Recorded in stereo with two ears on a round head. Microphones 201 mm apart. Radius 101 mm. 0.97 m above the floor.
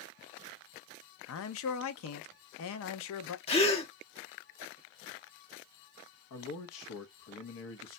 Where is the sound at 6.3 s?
65° left (ahead or behind), 0.9 m.